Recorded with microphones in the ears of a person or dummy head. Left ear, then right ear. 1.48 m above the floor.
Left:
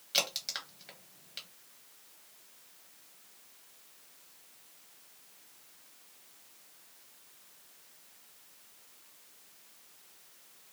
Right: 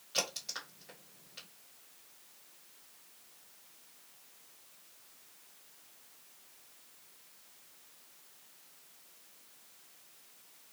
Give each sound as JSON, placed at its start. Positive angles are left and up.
{"t": 0.1, "sound": "a crack", "side_deg": 30, "distance_m": 1.2}